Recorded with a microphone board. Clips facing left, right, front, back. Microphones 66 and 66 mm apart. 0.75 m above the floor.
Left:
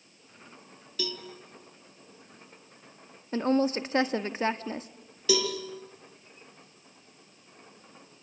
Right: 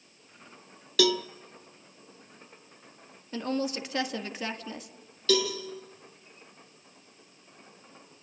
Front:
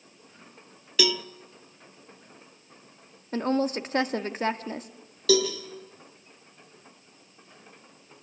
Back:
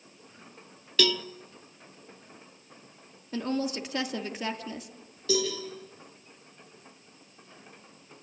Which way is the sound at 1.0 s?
80° right.